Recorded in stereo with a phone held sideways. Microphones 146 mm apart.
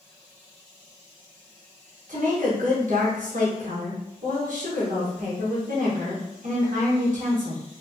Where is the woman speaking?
65° right (ahead or behind), 1.4 m.